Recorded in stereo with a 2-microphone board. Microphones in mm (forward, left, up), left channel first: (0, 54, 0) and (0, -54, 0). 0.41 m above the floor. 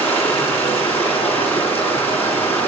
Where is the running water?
15° left (ahead or behind), 4 m.